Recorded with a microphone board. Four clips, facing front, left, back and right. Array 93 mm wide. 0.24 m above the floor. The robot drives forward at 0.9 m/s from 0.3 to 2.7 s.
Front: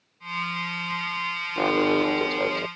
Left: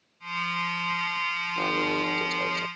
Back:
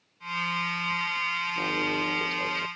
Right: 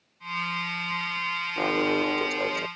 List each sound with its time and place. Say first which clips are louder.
1.6 s an alarm: right 3 dB, front 10 dB; 20° right; by 2.7 s 25° right